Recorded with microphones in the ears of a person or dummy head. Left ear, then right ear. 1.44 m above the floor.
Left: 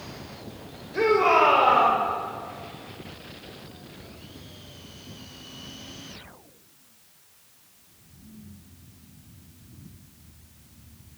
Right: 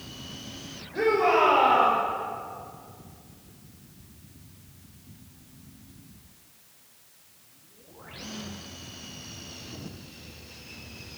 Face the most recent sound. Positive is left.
turn(degrees=50)  # may be behind; listen again after turning